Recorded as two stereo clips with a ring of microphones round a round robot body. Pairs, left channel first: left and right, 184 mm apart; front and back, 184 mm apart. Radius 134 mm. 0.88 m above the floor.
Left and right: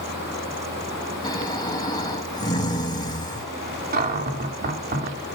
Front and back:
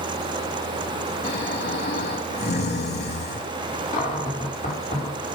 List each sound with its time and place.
1.2 s snoring: 25° left, 5.5 m
3.9 s a cupboard door: 60° right, 2.5 m